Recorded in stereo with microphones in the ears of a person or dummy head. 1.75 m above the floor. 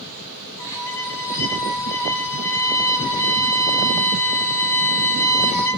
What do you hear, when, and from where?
0.6 s a violin: 15° left (ahead or behind), 0.8 m